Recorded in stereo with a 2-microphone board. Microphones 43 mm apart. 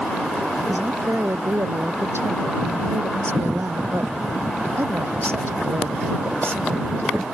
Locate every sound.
0.7 s a woman speaking: 80° right; by 7.3 s 65° right (ahead or behind)